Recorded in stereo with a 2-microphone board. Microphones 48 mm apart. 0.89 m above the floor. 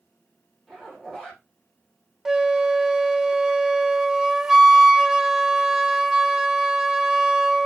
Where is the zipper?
5° left (ahead or behind), 5.5 m.